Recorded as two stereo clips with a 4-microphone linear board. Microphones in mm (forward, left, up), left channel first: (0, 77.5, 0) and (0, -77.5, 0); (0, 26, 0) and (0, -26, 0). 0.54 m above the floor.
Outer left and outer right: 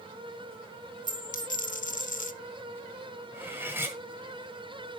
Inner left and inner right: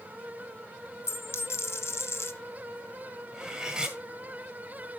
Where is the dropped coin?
55° left (ahead or behind), 0.8 m.